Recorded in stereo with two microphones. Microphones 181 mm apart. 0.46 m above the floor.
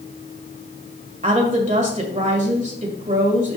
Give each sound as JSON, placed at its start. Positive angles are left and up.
{"t": 1.2, "sound": "a woman speaking", "side_deg": -40, "distance_m": 1.9}